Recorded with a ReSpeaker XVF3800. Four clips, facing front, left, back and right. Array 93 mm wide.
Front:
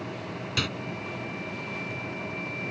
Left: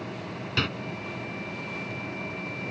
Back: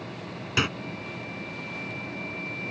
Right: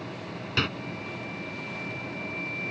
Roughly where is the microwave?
Behind.